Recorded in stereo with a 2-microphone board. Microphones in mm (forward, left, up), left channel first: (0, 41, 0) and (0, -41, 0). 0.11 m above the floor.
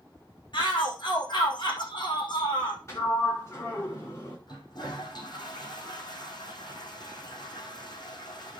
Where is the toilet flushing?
60° left (ahead or behind), 4 m.